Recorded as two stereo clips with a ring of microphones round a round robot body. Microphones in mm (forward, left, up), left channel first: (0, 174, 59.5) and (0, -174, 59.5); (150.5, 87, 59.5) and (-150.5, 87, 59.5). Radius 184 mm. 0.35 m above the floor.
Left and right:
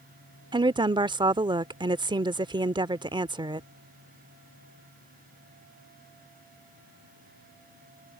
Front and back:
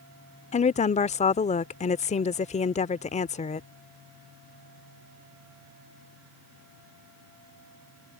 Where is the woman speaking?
30° right.